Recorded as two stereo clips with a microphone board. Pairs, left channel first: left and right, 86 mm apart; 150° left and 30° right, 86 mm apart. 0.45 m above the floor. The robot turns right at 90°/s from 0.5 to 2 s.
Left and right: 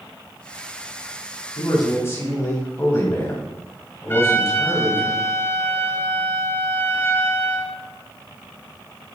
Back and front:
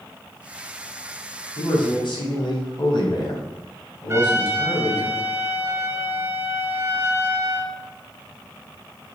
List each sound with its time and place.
1.6 s a man speaking: 105° left, 3 m; by 5.1 s 145° left, 3 m
4.1 s a trumpet: 30° left, 1.1 m